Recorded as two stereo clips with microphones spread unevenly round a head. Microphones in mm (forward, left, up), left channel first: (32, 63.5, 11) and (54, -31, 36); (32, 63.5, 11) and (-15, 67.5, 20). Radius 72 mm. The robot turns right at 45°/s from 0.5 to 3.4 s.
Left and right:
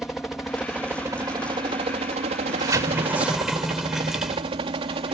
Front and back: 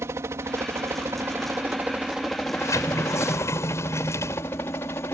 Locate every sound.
0.0 s a helicopter: 175° right; by 5.1 s 50° right
2.4 s a sliding door: 35° right; by 5.1 s 5° left